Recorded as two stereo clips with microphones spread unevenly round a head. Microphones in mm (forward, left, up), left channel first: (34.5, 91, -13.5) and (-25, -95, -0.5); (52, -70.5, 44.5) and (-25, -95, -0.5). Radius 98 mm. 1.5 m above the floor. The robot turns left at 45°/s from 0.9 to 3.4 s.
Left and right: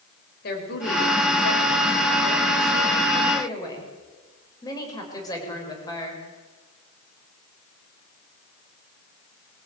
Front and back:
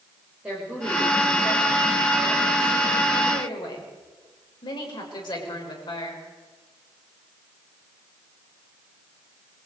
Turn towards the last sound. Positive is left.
turn(degrees=0)